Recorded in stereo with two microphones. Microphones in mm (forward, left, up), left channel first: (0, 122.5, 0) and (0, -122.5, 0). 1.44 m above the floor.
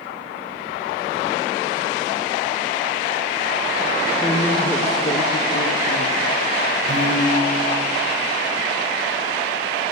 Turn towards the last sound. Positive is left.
turn(degrees=-55)  # may be behind; listen again after turning